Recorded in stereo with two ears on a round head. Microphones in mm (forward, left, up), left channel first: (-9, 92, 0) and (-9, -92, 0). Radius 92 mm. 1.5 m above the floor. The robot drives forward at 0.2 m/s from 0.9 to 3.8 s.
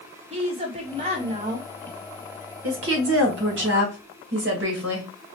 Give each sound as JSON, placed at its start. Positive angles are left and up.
{"t": 0.3, "sound": "a woman speaking", "side_deg": -30, "distance_m": 1.0}
{"t": 2.6, "sound": "a woman speaking", "side_deg": -75, "distance_m": 1.4}